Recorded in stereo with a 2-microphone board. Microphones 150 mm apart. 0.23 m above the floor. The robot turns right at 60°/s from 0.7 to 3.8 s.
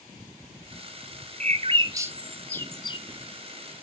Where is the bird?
55° right (ahead or behind), 0.6 m; by 3.0 s 40° left (ahead or behind), 0.6 m.